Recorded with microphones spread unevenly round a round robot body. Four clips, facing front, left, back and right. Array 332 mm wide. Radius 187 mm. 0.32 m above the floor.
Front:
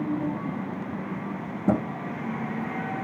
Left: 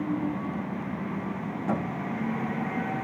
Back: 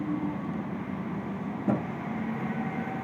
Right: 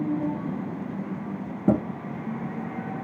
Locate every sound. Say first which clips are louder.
1.7 s a thud: right 7 dB, front 4 dB; 60° right, 1.4 m